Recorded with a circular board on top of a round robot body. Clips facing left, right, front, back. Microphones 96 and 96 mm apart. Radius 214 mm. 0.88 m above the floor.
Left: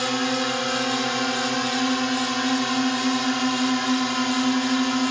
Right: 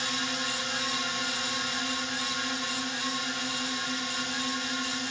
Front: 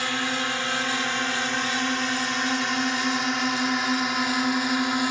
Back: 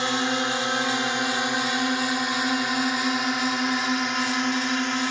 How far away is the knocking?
No knocking in this recording.